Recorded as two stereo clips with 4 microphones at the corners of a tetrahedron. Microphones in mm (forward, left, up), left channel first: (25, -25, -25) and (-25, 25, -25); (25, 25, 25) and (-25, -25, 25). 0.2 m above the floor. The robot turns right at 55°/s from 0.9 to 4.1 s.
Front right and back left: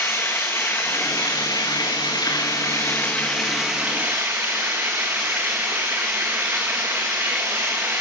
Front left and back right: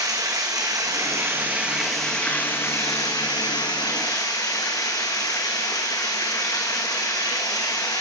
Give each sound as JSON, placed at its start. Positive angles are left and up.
{"t": 0.0, "sound": "running water", "azimuth_deg": -105, "distance_m": 4.5}